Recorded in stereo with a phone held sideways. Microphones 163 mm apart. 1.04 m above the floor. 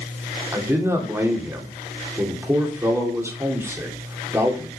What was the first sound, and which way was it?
A man speaking, 15° right (ahead or behind).